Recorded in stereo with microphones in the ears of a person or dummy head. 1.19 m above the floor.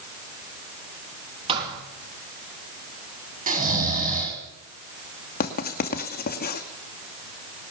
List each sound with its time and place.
1.5 s a thud: 30° right (ahead or behind), 8 m
3.5 s snoring: 40° right (ahead or behind), 4.5 m
5.4 s writing: 50° left (ahead or behind), 2 m